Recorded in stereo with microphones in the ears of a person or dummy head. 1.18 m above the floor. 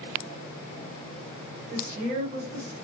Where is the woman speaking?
50° right (ahead or behind), 0.9 m.